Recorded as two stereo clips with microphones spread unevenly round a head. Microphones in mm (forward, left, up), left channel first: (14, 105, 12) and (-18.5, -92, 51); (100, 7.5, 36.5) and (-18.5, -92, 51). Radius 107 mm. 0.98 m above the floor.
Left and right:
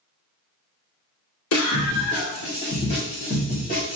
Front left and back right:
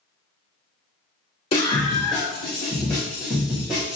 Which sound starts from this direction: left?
A scream, at 1.5 s.